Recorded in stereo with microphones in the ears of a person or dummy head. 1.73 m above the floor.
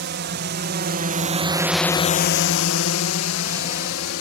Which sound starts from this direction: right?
A drone, at 0.0 s.